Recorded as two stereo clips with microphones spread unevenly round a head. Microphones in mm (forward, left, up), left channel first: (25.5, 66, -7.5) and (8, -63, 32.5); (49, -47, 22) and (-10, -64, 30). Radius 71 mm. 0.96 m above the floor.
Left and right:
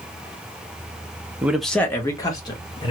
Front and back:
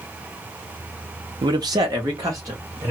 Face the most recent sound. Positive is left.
turn(degrees=135)